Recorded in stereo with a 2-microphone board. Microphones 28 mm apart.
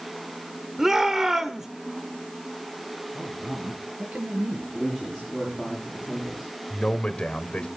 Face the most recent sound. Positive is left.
turn(degrees=45)  # may be behind; listen again after turning